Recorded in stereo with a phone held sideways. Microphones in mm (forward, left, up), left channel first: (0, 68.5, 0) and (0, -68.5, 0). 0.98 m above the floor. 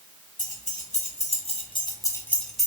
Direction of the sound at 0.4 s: 70° left (ahead or behind).